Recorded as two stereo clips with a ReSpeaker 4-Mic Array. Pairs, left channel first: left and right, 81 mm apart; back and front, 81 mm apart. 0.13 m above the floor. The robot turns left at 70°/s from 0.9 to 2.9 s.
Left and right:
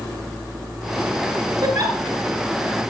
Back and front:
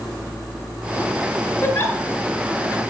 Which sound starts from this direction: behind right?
A giggle, at 1.6 s.